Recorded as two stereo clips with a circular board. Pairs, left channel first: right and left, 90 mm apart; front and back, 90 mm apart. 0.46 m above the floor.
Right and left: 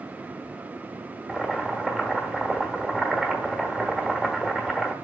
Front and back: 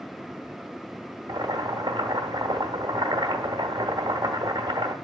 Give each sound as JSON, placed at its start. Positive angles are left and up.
{"t": 1.3, "sound": "boiling", "azimuth_deg": 170, "distance_m": 1.1}